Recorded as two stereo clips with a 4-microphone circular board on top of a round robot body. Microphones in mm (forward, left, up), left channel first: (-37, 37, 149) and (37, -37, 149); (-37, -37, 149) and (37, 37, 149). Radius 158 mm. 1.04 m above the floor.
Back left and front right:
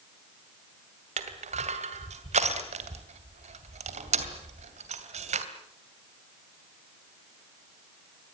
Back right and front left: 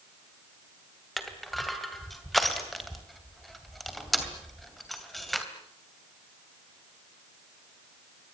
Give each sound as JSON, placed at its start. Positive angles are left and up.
{"t": 1.2, "sound": "crushing", "azimuth_deg": -45, "distance_m": 2.5}